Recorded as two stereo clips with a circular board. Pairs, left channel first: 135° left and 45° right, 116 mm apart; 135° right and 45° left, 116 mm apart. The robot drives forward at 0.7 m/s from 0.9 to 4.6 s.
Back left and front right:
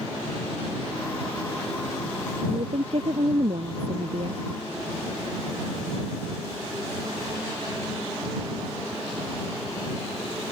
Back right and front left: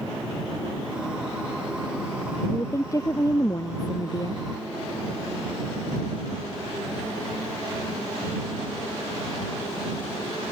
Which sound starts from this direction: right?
A woman speaking, at 2.5 s.